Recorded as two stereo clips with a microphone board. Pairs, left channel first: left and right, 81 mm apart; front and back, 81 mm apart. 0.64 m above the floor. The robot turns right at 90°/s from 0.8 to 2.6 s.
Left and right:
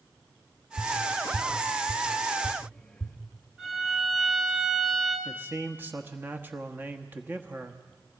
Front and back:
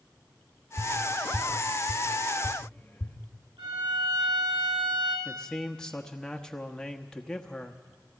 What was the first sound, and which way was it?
Tapping, 120° right.